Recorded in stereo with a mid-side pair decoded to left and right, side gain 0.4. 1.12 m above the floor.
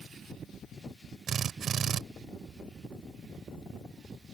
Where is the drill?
65° right.